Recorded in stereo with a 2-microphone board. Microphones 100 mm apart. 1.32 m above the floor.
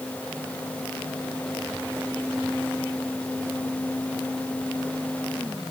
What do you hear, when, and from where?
Only background noise.